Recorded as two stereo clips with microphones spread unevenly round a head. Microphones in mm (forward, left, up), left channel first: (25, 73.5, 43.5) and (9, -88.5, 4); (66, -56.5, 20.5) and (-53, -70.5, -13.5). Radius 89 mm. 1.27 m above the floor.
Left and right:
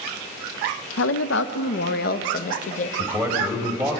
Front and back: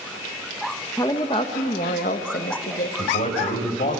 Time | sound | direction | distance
1.0 | a woman speaking | 85° left | 1.1 m
3.0 | a man speaking | 15° right | 5.5 m